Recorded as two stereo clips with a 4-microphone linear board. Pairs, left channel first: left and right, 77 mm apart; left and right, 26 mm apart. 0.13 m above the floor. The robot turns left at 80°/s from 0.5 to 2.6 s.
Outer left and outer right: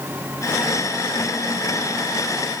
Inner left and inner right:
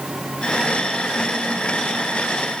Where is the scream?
I don't hear a scream.